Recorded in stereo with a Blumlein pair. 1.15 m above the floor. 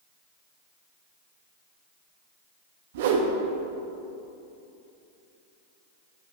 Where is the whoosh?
55° right, 0.9 m.